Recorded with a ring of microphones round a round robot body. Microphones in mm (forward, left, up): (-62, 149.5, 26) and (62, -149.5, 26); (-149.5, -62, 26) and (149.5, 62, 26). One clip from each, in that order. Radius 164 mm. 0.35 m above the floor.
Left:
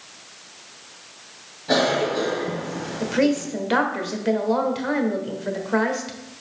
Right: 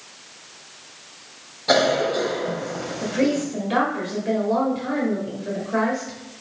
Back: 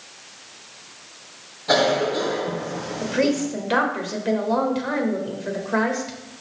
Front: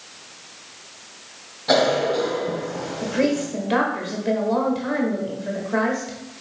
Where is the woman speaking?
135° left, 1.3 m.